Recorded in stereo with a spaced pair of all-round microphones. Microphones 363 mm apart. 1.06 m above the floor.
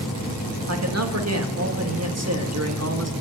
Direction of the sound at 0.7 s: 45° right (ahead or behind).